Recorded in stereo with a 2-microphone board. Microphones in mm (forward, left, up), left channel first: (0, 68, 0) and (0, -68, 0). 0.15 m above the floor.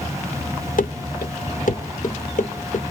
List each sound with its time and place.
0.8 s running footsteps: 85° left, 0.8 m; by 2.8 s 65° left (ahead or behind), 2 m